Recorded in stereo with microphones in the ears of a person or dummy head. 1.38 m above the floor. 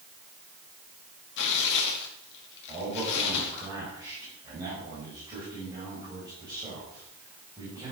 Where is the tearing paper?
55° left (ahead or behind), 2 m.